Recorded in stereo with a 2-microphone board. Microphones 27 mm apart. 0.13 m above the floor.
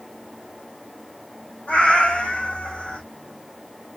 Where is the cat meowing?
70° left (ahead or behind), 2.0 m; by 3.0 s 55° left (ahead or behind), 1.5 m.